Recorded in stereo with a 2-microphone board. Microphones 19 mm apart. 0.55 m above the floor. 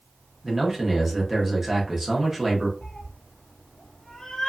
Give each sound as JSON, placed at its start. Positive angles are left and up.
{"t": 0.4, "sound": "a man speaking", "side_deg": -15, "distance_m": 1.0}
{"t": 2.8, "sound": "a cat meowing", "side_deg": 50, "distance_m": 1.1}